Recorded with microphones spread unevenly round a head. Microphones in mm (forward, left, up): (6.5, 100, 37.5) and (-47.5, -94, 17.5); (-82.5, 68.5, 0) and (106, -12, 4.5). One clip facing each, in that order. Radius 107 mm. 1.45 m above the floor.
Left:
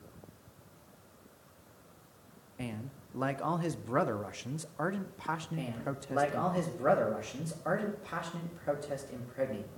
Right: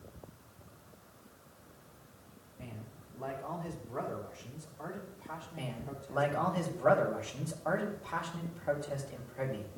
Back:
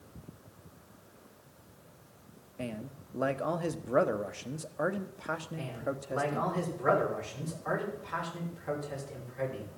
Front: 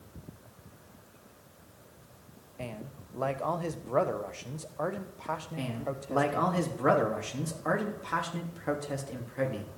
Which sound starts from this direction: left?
A man speaking, at 2.6 s.